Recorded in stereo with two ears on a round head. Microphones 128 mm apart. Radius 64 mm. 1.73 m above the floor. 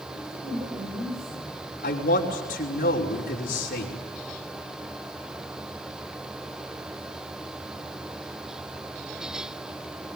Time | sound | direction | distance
0.1 | a woman speaking | 75° right (ahead or behind) | 8 m
1.8 | a man speaking | 65° left (ahead or behind) | 5 m